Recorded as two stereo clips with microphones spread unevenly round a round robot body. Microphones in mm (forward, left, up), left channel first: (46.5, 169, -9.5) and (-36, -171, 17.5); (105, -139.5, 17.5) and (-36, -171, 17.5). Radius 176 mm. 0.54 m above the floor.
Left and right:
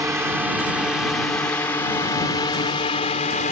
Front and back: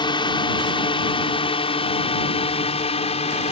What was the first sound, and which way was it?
A drone, 20° right.